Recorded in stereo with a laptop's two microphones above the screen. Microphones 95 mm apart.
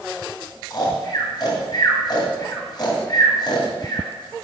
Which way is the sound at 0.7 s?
50° left (ahead or behind).